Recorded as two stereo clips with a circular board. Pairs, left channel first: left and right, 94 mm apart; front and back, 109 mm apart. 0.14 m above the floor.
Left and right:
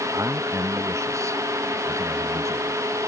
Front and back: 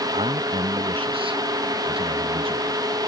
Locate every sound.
0.1 s a man speaking: 150° right